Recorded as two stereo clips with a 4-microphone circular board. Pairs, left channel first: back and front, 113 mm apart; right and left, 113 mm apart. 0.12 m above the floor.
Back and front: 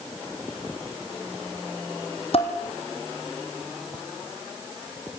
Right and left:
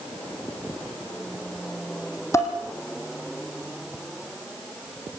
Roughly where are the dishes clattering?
Behind right.